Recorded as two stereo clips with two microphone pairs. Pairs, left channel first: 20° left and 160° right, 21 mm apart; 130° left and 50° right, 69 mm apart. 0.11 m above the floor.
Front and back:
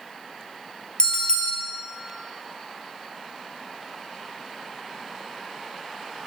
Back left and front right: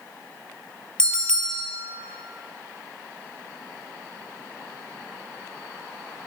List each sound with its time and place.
1.0 s a bell: 55° left, 0.7 m